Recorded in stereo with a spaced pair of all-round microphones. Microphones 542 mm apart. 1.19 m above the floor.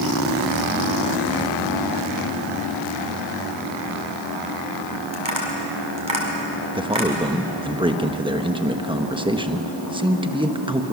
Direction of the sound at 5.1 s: 55° right (ahead or behind).